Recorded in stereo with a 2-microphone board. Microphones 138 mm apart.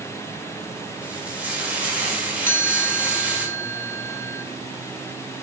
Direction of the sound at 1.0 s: 10° right (ahead or behind).